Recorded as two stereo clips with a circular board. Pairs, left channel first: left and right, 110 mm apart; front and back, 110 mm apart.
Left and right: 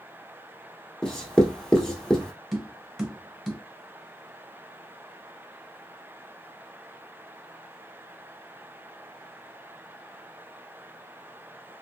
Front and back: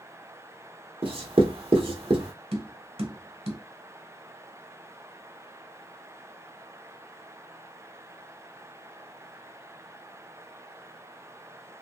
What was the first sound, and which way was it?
Writing, 175° left.